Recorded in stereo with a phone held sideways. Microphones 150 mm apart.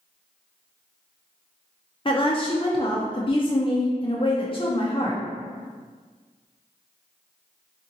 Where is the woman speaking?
35° left (ahead or behind), 0.5 m.